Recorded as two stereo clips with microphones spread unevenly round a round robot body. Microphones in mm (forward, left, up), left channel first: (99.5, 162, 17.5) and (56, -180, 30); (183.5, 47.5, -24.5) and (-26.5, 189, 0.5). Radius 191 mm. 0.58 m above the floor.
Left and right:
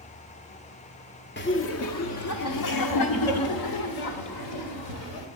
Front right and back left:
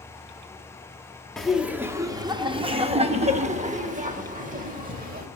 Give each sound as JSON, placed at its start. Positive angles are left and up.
{"t": 1.4, "sound": "laughter", "azimuth_deg": 45, "distance_m": 0.9}